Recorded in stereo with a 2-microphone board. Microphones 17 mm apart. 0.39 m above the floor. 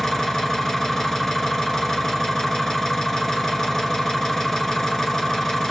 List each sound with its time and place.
0.0 s an engine running: 20° left (ahead or behind), 1.3 m